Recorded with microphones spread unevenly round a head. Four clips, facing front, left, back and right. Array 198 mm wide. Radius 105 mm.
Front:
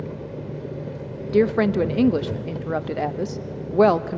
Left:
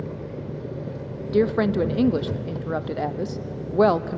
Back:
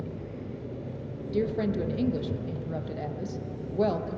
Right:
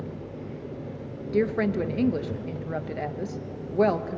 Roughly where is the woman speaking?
Ahead.